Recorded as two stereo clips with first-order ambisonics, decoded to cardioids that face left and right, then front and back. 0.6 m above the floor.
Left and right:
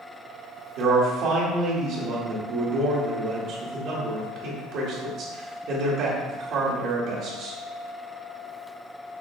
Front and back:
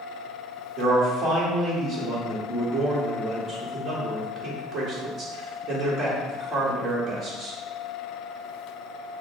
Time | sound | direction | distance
0.8 | a man speaking | 120° right | 1.5 m